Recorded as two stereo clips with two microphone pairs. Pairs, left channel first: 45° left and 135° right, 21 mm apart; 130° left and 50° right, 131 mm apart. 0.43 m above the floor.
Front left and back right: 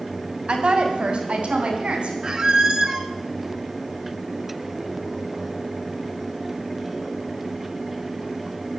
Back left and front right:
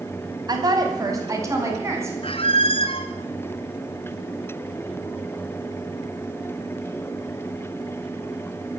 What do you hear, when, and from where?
0.5 s a woman speaking: 105° right, 3.5 m; by 2.1 s 120° right, 5 m
2.2 s a squeak: 170° left, 1.3 m